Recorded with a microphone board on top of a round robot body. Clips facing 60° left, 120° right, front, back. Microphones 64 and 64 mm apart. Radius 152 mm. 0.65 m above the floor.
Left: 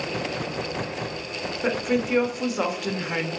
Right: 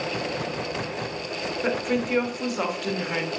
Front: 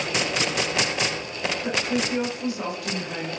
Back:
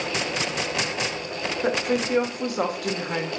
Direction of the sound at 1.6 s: 150° left.